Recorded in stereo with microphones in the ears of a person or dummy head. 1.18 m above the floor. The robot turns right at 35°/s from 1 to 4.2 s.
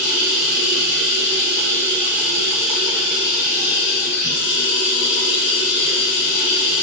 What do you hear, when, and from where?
0.0 s running water: 65° right, 1.5 m; by 6.8 s 50° left, 1.5 m